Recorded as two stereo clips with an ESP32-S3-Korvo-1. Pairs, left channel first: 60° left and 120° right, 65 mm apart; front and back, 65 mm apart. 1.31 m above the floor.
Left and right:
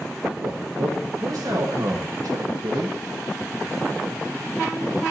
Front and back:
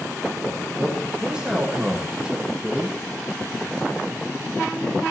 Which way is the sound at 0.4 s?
105° right.